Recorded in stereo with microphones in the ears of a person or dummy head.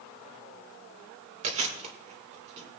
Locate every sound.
1.4 s chewing: 35° right (ahead or behind), 2.5 m